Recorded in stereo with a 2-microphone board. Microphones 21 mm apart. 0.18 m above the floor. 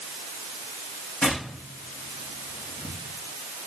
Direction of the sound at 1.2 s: 70° left (ahead or behind).